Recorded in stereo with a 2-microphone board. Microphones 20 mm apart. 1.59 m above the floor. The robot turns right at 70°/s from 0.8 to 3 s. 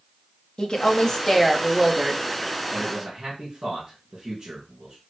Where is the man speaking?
25° right (ahead or behind), 2 m; by 5.0 s 45° right (ahead or behind), 2 m.